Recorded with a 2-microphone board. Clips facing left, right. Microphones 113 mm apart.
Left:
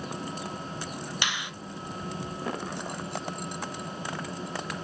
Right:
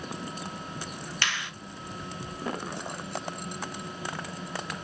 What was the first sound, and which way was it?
A finger snap, 15° left (ahead or behind).